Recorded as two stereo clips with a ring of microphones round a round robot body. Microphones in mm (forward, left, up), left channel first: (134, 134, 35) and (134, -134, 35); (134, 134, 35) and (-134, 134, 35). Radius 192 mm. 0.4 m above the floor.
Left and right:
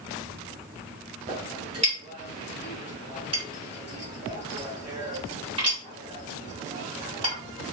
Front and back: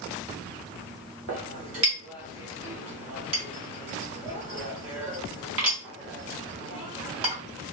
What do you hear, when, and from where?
1.3 s a clink: 160° right, 1.0 m